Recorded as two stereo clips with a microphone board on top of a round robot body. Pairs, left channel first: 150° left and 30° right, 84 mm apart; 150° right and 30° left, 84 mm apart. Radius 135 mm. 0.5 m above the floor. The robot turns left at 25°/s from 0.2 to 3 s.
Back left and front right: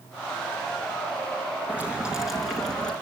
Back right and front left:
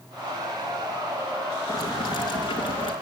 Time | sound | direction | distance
1.7 | boiling | 100° right | 5 m